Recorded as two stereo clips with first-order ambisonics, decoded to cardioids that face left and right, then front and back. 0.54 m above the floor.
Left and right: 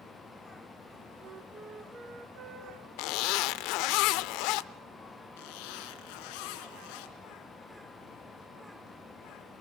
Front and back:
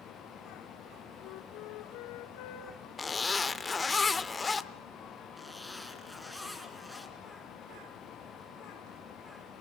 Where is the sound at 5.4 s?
90° left, 2 m.